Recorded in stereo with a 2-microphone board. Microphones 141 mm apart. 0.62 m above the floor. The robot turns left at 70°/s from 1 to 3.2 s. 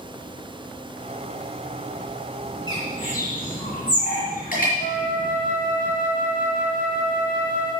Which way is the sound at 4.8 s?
85° left.